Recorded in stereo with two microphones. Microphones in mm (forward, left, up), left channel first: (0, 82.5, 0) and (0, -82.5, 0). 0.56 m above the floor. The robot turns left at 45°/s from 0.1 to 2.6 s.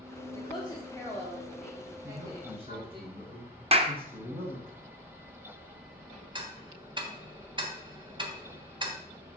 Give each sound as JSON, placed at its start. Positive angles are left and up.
{"t": 0.3, "sound": "a woman speaking", "side_deg": 30, "distance_m": 1.6}
{"t": 2.0, "sound": "a man speaking", "side_deg": -10, "distance_m": 3.5}
{"t": 3.7, "sound": "a clap", "side_deg": -35, "distance_m": 0.8}
{"t": 6.3, "sound": "ticking", "side_deg": -30, "distance_m": 1.3}